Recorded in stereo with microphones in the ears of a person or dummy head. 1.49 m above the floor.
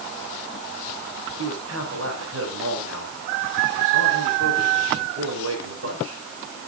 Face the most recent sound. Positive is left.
turn(degrees=-85)